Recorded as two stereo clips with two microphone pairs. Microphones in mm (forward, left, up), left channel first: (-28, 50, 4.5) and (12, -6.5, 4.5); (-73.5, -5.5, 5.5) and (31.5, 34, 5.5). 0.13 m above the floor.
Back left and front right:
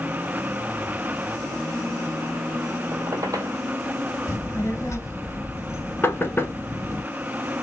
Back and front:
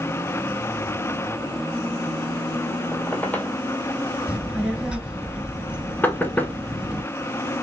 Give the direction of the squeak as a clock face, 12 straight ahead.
3 o'clock.